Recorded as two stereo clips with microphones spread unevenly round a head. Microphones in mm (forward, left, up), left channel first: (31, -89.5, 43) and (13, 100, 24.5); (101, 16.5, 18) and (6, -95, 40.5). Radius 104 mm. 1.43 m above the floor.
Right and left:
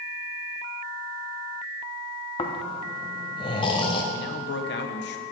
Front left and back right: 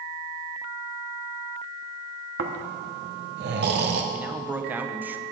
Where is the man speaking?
55° right, 0.9 m.